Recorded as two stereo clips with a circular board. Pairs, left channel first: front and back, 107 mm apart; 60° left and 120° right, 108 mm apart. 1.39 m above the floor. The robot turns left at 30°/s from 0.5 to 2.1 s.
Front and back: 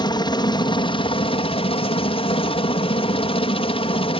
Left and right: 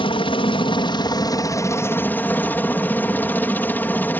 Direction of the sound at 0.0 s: 40° left.